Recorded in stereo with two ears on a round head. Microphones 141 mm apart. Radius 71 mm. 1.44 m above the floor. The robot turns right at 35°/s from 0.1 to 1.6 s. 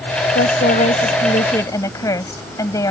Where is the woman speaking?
115° left; by 2.9 s 160° left.